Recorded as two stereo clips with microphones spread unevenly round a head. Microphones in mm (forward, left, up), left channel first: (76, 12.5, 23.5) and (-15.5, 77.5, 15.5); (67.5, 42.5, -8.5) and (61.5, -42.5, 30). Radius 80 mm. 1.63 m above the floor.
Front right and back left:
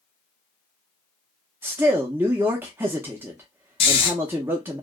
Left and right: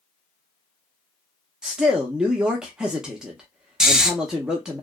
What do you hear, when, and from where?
1.6 s a man speaking: 140° right, 0.5 m
3.8 s snoring: 35° right, 0.5 m